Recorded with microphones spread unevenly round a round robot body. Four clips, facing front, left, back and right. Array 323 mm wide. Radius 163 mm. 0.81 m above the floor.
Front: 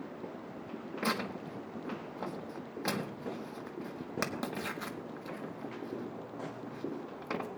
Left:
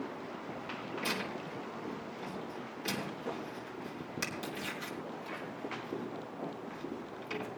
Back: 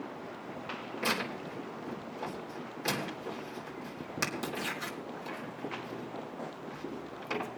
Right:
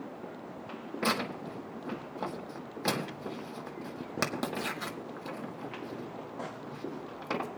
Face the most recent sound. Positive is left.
turn(degrees=-95)